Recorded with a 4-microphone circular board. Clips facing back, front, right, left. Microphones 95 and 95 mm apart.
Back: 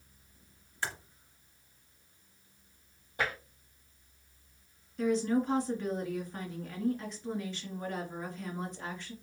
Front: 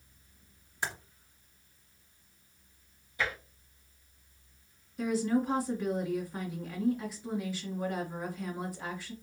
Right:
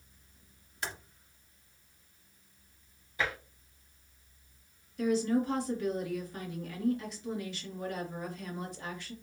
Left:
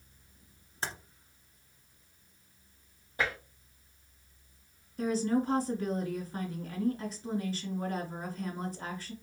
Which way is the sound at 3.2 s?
135° left.